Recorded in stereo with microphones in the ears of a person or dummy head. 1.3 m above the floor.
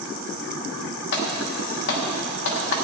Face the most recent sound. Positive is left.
turn(degrees=65)  # may be behind; listen again after turning